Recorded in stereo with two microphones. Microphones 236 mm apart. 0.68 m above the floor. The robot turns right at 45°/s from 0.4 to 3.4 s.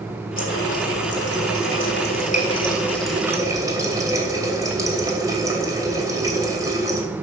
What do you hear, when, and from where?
0.4 s a running tap: 60° left, 2.5 m; by 7.0 s 165° right, 2.5 m